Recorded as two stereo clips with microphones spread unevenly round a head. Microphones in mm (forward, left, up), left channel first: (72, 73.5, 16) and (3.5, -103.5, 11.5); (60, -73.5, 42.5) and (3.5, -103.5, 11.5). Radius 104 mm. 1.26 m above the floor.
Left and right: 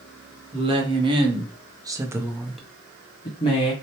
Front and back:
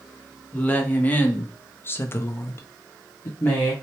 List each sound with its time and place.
0.5 s a woman speaking: 50° right, 1.2 m; by 3.7 s 120° left, 0.7 m